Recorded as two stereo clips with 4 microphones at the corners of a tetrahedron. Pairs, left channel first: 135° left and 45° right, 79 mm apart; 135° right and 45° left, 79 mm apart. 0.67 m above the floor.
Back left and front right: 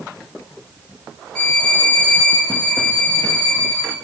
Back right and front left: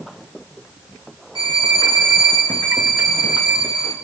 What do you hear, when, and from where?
1.4 s a violin: 55° left, 1.7 m